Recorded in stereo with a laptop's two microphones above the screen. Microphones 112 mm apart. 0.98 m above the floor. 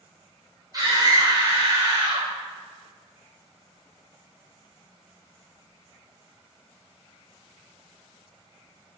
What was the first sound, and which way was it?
A scream, 35° right (ahead or behind).